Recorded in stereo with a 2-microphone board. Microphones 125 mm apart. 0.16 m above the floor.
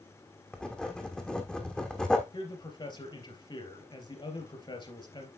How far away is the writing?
About 1.4 m.